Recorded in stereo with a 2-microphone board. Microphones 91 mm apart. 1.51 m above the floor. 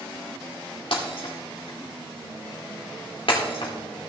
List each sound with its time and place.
0.9 s breaking glass: 65° left (ahead or behind), 2.5 m